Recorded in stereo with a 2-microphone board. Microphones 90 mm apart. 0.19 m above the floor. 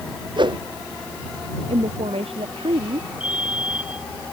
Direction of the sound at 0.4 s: 55° right (ahead or behind).